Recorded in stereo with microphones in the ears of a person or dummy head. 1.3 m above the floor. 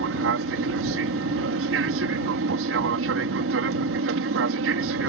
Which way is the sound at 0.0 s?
60° right (ahead or behind).